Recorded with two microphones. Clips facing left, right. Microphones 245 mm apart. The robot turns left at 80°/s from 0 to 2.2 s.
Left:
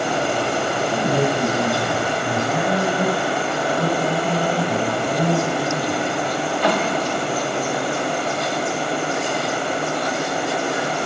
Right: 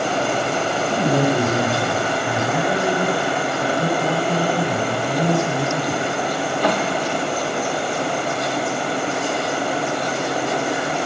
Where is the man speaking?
110° right, 7.5 m; by 6.0 s 145° left, 7.5 m.